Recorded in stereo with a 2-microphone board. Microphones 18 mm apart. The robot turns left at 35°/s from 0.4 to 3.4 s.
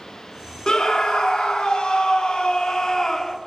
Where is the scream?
130° left, 1.3 m; by 3.4 s 35° left, 1.3 m.